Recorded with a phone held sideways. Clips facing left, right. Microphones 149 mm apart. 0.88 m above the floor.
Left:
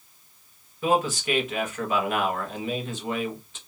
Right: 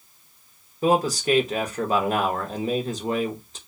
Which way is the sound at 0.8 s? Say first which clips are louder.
Right 3 dB; 40° right (ahead or behind).